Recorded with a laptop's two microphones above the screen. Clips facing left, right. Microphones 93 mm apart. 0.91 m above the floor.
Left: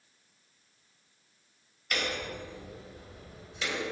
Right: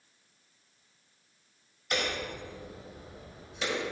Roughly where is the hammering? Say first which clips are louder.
Right 1 dB; right.